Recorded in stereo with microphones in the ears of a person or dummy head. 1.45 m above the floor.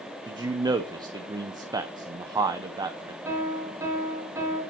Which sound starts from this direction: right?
A man speaking, at 0.3 s.